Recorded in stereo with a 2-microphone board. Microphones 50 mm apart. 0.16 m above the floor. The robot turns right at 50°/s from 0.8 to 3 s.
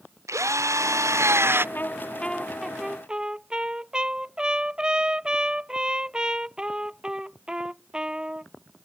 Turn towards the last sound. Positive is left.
turn(degrees=-160)